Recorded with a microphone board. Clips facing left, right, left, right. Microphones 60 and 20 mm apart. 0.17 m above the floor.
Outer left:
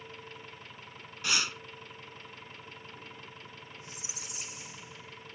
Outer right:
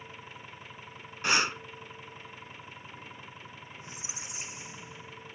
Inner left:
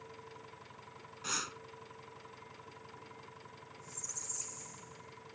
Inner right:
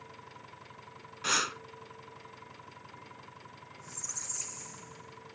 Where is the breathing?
35° right (ahead or behind).